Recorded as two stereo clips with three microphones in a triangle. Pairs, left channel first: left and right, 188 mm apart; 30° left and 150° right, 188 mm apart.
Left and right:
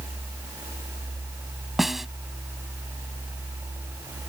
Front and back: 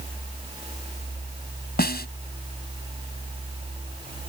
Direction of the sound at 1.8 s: Straight ahead.